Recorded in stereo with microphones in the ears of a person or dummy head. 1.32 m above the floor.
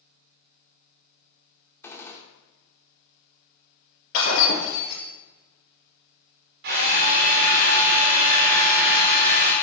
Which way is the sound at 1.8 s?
20° left (ahead or behind).